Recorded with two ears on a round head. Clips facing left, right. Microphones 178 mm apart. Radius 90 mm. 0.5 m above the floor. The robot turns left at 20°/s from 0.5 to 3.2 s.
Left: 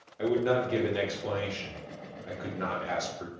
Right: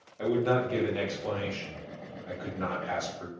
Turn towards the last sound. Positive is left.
turn(degrees=25)  # may be behind; listen again after turning